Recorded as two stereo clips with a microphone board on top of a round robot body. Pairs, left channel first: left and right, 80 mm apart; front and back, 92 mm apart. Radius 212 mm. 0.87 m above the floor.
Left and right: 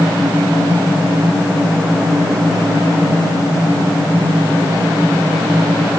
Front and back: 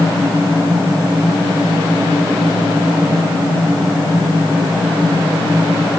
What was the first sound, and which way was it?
Only background noise.